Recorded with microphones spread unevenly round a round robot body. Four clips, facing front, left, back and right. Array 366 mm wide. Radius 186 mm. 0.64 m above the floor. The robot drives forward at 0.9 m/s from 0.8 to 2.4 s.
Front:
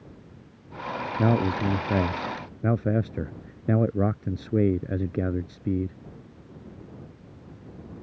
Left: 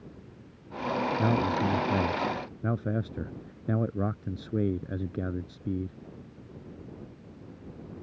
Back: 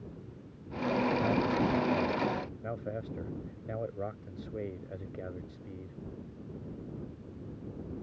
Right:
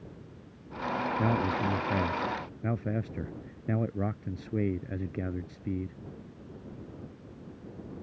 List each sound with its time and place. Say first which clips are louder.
1.2 s a man speaking: left 1 dB, front 5 dB; 5° left